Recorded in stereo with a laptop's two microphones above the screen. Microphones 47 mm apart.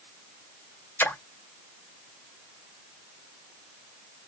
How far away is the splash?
About 1.4 m.